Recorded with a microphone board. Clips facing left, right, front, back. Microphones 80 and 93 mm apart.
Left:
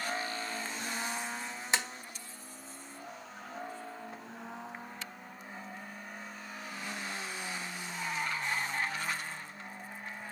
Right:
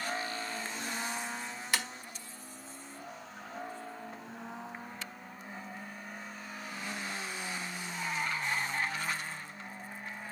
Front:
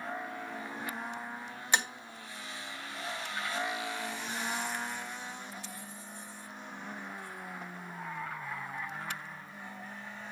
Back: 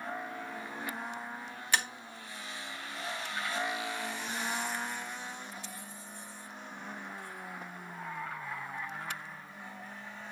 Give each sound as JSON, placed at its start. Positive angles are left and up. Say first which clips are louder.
{"t": 1.7, "sound": "tapping", "louder": "left 1 dB, front 1 dB", "azimuth_deg": 50, "distance_m": 1.3}